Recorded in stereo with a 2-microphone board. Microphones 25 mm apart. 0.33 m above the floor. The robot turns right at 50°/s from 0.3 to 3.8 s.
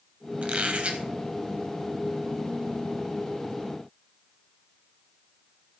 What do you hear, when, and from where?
0.4 s a squeak: 105° right, 0.9 m; by 1.0 s 75° right, 0.9 m